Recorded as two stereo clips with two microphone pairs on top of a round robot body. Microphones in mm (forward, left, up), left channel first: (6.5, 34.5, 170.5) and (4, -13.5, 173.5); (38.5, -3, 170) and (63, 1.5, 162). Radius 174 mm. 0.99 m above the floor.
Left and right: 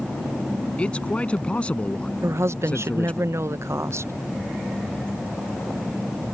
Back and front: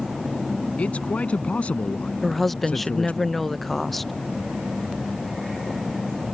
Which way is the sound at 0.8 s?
155° left.